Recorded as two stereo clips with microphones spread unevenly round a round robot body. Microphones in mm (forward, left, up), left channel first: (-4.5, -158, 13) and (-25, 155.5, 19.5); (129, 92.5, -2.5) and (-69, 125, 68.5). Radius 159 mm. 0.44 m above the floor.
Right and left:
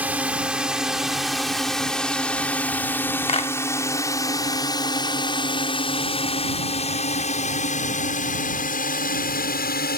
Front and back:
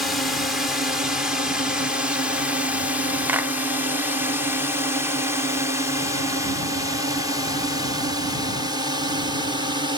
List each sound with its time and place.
0.0 s a drone: 15° left; by 10.0 s 105° right
3.3 s a clap: 65° right